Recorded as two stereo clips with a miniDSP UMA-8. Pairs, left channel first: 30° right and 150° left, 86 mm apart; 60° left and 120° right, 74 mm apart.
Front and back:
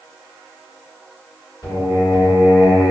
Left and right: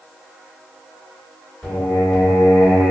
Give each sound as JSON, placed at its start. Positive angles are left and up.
{"t": 1.6, "sound": "singing", "azimuth_deg": -10, "distance_m": 1.7}